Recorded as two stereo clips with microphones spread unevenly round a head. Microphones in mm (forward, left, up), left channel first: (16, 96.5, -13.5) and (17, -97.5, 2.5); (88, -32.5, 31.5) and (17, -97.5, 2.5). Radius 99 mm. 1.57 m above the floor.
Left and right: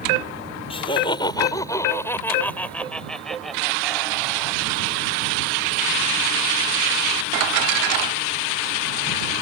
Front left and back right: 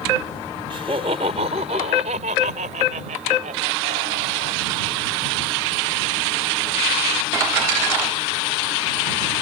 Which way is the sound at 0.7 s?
155° left.